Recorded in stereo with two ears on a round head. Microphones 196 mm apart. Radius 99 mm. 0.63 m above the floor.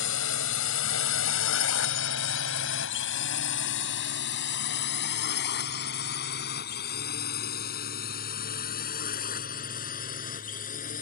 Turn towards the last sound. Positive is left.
turn(degrees=40)  # may be behind; listen again after turning